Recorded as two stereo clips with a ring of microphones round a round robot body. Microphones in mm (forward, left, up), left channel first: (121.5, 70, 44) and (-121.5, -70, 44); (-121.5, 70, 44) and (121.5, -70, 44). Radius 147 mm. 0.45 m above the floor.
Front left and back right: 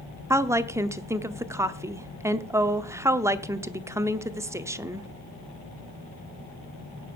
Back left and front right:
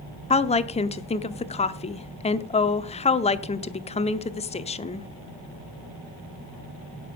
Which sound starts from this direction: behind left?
A woman speaking, at 0.3 s.